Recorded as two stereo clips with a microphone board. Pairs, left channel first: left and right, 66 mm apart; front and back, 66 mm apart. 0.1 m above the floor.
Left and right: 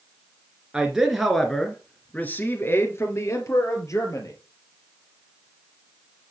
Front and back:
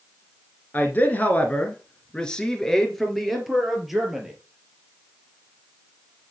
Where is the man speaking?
25° right, 1.7 m; by 4.3 s 95° left, 2.5 m.